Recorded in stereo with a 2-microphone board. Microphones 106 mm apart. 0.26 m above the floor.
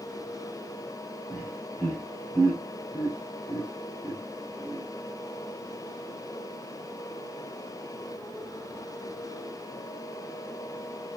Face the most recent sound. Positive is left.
turn(degrees=-25)  # may be behind; listen again after turning